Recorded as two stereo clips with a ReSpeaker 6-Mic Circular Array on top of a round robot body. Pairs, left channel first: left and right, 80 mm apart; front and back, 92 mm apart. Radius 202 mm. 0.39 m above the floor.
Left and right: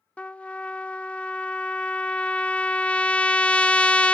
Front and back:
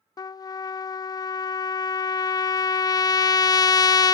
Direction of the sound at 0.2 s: 20° left.